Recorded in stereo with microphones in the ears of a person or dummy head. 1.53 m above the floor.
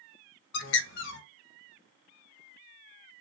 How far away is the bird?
About 0.8 m.